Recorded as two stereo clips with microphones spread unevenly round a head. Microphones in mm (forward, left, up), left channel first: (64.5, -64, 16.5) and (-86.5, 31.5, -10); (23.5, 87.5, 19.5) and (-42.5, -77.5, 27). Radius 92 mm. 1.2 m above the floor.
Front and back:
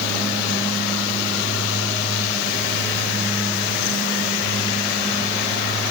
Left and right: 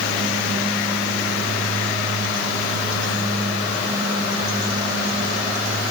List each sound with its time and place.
Only background noise.